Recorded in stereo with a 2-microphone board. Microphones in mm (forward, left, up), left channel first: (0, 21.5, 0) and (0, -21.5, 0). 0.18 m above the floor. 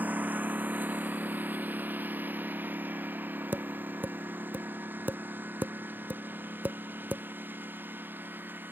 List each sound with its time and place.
0.0 s a lawn mower: 40° right (ahead or behind); by 8.7 s 50° right (ahead or behind)
3.5 s tapping: 50° right (ahead or behind)